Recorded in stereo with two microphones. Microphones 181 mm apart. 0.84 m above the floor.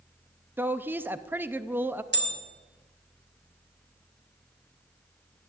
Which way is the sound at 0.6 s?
10° right (ahead or behind).